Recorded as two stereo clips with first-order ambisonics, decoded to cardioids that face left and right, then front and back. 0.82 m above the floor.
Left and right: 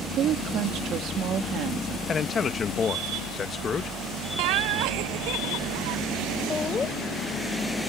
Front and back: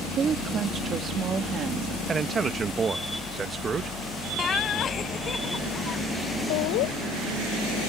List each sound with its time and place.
0.1 s a woman speaking: 125° right
2.1 s a man speaking: 135° left
4.4 s laughter: 70° right
6.5 s laughter: 15° left